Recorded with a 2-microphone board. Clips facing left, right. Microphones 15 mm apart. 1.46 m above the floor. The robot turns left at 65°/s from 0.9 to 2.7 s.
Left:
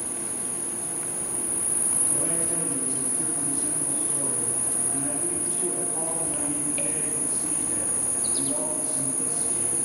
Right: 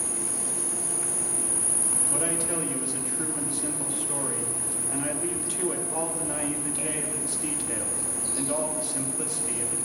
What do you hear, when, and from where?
0.0 s an insect: 115° right, 1.3 m; by 9.9 s 130° left, 1.3 m
2.1 s a man speaking: 55° right, 2 m; by 9.8 s 95° right, 2 m